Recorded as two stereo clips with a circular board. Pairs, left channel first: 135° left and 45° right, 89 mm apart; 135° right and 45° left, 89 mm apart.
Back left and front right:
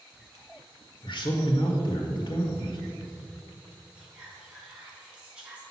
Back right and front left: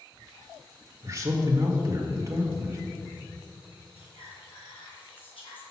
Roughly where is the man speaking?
Left.